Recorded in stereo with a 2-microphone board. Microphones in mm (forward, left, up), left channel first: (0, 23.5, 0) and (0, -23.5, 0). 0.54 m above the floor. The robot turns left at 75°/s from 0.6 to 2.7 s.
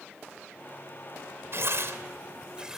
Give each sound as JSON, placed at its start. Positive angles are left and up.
{"t": 1.5, "sound": "tearing paper", "side_deg": -60, "distance_m": 2.5}